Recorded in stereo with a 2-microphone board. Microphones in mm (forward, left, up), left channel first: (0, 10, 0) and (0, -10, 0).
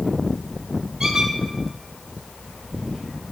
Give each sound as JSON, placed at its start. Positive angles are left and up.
{"t": 1.0, "sound": "a squeak", "side_deg": -40, "distance_m": 3.0}